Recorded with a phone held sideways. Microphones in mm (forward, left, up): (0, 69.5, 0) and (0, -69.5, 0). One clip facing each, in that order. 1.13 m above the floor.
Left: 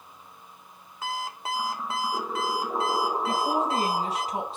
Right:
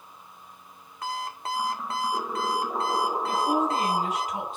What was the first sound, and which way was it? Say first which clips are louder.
An alarm clock: even; 5° left (ahead or behind).